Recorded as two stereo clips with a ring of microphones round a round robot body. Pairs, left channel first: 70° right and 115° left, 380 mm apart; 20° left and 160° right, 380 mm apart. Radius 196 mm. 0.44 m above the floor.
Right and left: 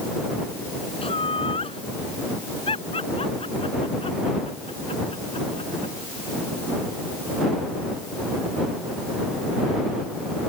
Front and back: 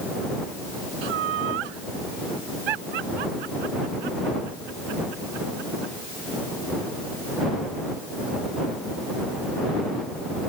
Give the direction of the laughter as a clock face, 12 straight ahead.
5 o'clock.